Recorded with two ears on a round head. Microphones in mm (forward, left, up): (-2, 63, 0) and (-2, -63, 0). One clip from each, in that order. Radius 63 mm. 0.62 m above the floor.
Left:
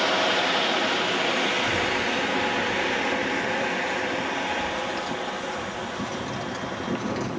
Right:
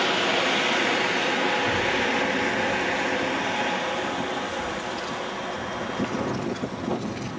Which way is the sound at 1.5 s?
60° left (ahead or behind).